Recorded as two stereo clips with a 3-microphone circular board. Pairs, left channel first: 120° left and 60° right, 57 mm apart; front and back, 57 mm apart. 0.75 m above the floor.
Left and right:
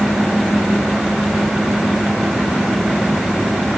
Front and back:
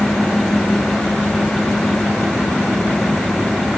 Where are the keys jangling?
I don't hear keys jangling.